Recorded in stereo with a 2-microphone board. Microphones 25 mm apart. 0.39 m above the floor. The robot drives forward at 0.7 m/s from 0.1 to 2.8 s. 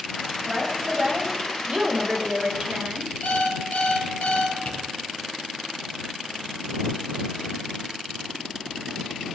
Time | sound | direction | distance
0.5 | a woman speaking | 30° right (ahead or behind) | 2.5 m
3.2 | an alarm clock | 85° left | 3.5 m
4.7 | tapping | 55° left (ahead or behind) | 5 m